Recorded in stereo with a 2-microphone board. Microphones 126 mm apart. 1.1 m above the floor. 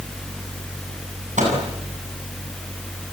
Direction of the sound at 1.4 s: 80° right.